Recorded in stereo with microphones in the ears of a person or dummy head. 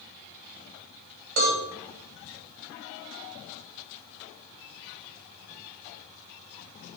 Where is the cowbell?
75° right (ahead or behind), 1.7 m.